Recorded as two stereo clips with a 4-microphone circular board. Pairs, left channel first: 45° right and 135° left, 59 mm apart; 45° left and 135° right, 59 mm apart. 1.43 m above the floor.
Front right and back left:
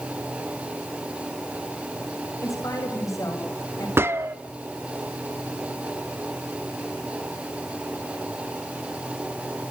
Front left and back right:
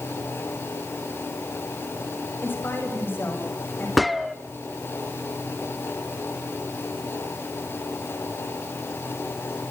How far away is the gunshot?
About 1.1 m.